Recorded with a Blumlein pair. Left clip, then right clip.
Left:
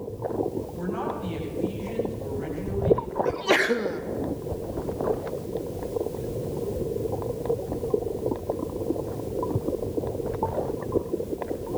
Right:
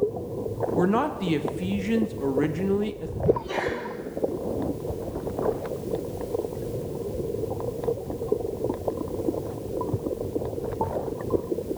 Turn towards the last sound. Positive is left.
turn(degrees=55)